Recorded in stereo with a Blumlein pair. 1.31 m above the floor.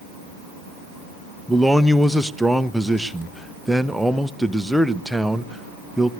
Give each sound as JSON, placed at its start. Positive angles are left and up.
{"t": 1.5, "sound": "a man speaking", "azimuth_deg": 0, "distance_m": 0.7}